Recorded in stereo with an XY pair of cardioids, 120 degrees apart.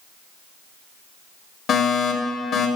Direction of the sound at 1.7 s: 55° left.